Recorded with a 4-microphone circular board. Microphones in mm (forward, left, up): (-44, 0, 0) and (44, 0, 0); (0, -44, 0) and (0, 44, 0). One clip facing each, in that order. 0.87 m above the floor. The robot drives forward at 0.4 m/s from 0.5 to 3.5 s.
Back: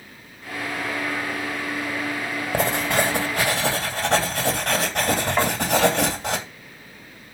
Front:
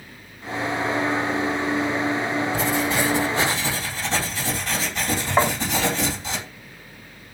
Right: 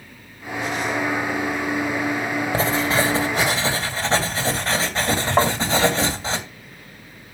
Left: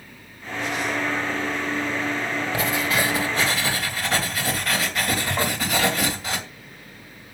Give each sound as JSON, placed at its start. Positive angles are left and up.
{"t": 2.5, "sound": "writing", "azimuth_deg": -145, "distance_m": 2.5}
{"t": 5.4, "sound": "tapping", "azimuth_deg": -70, "distance_m": 2.5}